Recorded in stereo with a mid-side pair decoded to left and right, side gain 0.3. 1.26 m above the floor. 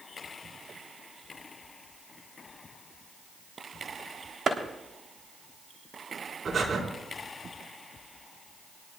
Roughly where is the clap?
Ahead right.